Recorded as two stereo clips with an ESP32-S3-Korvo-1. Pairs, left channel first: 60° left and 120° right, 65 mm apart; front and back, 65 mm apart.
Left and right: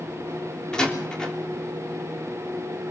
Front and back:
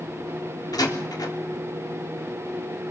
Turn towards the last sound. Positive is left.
turn(degrees=-20)